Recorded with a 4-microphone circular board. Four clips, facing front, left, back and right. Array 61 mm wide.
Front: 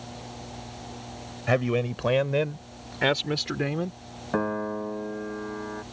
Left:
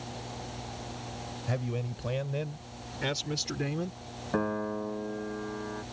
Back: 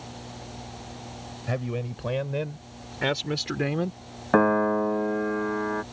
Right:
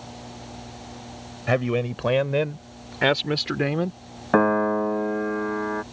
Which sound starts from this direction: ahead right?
A man speaking, at 1.5 s.